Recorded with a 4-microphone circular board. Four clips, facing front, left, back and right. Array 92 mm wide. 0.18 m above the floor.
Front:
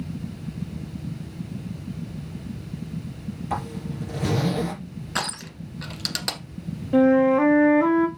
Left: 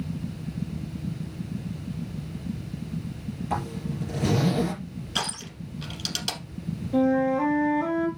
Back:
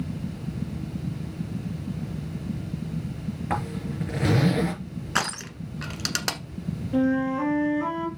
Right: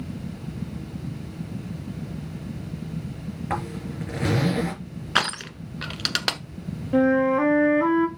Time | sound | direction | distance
3.5 | a zipper | 135° right | 3.5 m
5.2 | crushing | 105° right | 1.1 m
6.9 | a flute | 50° right | 1.3 m